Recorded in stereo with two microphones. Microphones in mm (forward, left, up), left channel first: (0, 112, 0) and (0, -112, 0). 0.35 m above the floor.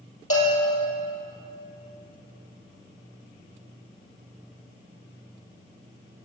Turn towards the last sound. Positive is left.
turn(degrees=85)